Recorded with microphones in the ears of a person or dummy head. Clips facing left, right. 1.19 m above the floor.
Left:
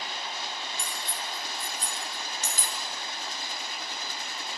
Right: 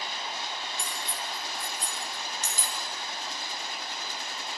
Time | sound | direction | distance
0.8 | cutlery clinking | 65° left (ahead or behind) | 3 m